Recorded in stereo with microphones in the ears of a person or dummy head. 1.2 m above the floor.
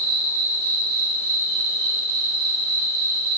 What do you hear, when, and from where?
0.0 s an insect: 45° right (ahead or behind), 1.8 m